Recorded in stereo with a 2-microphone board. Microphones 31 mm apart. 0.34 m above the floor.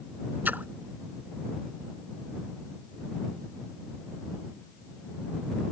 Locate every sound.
0.5 s a splash: 80° right